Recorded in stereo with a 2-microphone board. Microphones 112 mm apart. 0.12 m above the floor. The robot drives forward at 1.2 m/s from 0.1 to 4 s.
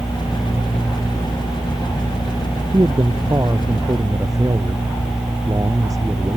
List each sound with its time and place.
2.7 s a man speaking: 35° right (ahead or behind); by 6.4 s 30° right (ahead or behind)